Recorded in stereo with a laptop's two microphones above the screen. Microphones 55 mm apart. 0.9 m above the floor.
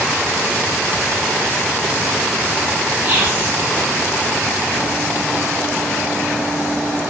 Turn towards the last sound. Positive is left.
turn(degrees=-25)  # may be behind; listen again after turning